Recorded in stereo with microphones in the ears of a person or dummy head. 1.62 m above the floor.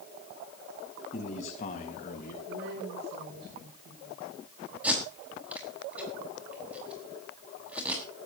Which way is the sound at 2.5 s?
75° right (ahead or behind).